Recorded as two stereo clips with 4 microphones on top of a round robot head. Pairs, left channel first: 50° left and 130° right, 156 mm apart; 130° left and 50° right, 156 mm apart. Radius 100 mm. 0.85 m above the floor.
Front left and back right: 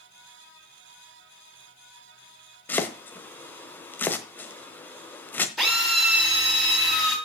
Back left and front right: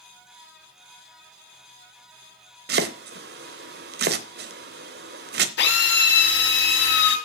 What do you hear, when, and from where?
2.7 s chopping: 30° right, 0.9 m
5.6 s a drill: 140° left, 6 m